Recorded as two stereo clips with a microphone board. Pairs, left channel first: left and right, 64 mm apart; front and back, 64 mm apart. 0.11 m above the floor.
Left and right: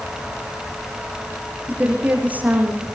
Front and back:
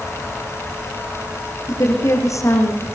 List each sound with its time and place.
1.7 s a woman speaking: 25° right, 6.5 m